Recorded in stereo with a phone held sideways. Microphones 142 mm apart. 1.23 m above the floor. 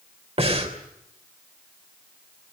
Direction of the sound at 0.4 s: 45° right (ahead or behind).